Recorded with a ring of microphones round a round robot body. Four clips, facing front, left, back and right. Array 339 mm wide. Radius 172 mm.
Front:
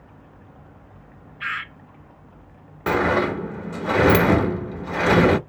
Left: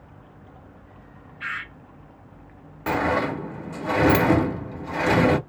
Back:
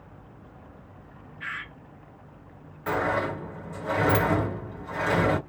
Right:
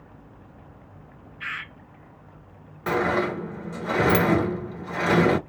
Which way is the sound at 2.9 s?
5° left.